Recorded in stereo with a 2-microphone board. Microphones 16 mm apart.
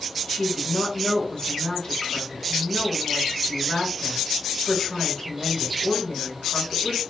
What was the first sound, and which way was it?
A woman speaking, 60° left (ahead or behind).